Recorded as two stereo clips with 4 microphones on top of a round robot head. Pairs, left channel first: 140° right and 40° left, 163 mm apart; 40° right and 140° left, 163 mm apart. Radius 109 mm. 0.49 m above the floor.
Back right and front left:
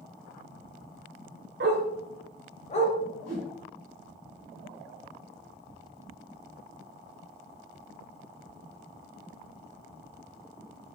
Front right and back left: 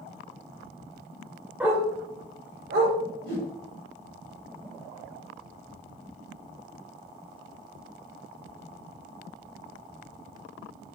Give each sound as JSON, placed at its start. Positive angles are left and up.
{"t": 1.6, "sound": "a dog barking", "azimuth_deg": 60, "distance_m": 0.9}
{"t": 3.2, "sound": "a whoosh", "azimuth_deg": -10, "distance_m": 1.8}